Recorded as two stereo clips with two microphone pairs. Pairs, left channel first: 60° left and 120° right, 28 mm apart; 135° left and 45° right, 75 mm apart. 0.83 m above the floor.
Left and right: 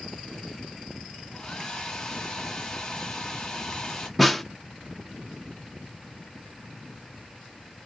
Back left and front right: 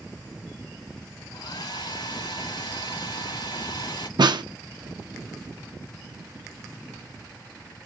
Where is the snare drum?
30° right, 0.5 m.